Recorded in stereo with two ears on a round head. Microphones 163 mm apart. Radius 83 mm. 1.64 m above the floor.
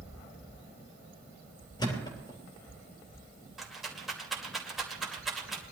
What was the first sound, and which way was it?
A thud, 25° left (ahead or behind).